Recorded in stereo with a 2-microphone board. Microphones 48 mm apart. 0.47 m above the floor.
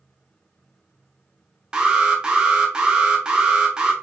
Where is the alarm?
15° right (ahead or behind), 1.0 m.